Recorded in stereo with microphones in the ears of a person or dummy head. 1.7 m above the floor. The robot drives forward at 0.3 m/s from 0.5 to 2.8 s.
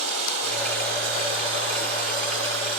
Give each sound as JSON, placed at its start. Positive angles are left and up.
{"t": 0.0, "sound": "running water", "side_deg": -50, "distance_m": 2.5}